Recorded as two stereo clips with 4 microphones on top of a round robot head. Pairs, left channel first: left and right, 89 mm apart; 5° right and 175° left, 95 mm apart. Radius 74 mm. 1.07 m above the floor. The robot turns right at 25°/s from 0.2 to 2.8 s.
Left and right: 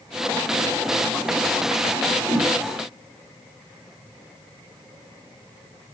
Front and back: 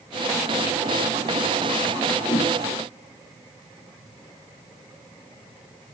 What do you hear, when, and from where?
2.3 s a whoosh: 45° right, 8.5 m; by 2.5 s 40° right, 8.5 m